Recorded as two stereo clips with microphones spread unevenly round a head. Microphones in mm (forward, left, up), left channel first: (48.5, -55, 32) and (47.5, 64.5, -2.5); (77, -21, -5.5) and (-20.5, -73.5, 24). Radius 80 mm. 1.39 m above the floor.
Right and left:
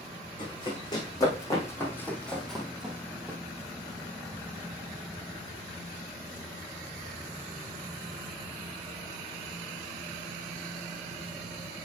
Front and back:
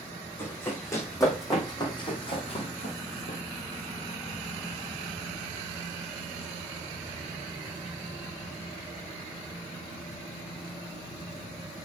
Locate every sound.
0.4 s running footsteps: 45° right, 5 m; by 3.4 s 15° left, 3 m